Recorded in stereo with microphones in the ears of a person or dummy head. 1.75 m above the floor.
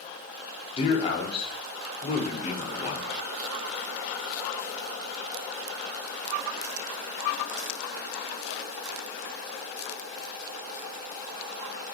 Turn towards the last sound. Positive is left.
turn(degrees=30)  # may be behind; listen again after turning